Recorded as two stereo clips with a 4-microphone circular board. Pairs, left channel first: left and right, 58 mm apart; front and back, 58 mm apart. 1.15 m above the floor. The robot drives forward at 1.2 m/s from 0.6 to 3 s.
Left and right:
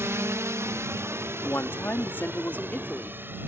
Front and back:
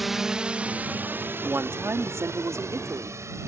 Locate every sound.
0.0 s a drone: 90° right; by 3.5 s 145° right
1.3 s a woman speaking: 130° left; by 3.2 s 155° left